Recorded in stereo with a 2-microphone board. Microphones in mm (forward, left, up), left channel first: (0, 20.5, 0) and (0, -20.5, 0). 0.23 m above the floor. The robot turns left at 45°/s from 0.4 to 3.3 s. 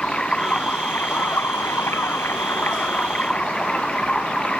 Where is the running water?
155° left; by 4.6 s 25° left.